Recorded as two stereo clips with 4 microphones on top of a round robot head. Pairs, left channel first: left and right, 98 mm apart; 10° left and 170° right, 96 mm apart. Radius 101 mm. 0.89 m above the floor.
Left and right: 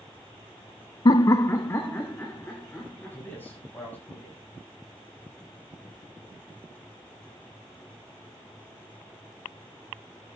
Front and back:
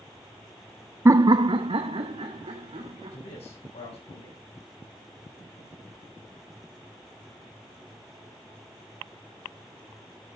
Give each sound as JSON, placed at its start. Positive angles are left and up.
{"t": 1.1, "sound": "laughter", "azimuth_deg": 130, "distance_m": 0.5}
{"t": 3.1, "sound": "a man speaking", "azimuth_deg": 20, "distance_m": 7.0}